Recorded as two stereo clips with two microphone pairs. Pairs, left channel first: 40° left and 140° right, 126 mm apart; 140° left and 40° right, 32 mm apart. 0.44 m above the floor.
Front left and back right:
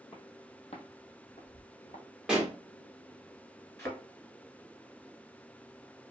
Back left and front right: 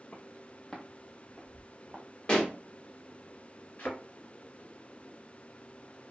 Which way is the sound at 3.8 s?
110° left.